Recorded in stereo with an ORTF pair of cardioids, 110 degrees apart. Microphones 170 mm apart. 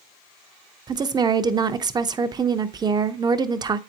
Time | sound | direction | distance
0.9 | a woman speaking | 25° right | 0.7 m